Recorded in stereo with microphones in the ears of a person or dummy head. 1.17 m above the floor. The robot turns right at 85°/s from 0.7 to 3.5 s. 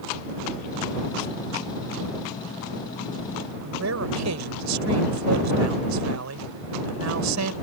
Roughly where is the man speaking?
Right.